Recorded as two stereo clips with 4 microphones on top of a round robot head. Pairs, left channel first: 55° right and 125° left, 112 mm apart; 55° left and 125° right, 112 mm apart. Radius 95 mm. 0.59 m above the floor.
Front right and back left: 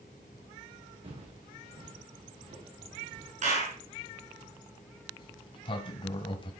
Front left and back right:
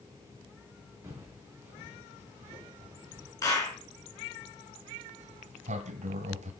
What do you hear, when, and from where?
1.0 s footsteps: 165° left, 3 m; by 3.3 s 160° left, 6 m
3.4 s a clap: 115° left, 5 m
5.2 s a sliding door: 100° right, 1.1 m